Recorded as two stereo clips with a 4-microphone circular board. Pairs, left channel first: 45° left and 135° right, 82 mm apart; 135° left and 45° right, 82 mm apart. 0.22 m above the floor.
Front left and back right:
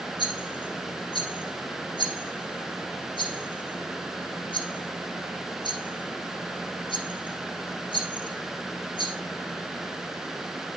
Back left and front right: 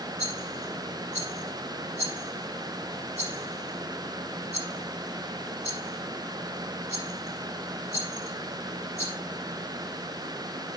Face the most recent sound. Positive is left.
turn(degrees=20)